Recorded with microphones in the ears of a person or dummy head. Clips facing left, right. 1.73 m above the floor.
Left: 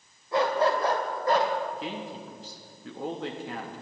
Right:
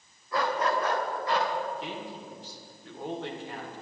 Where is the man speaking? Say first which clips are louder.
Left 2 dB; 80° left, 3 m.